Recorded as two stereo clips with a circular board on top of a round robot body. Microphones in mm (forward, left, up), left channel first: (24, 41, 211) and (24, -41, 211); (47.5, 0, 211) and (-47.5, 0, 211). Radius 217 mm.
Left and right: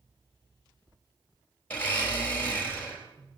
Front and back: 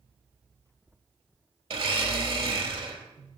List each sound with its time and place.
1.7 s a blender: 160° left, 4 m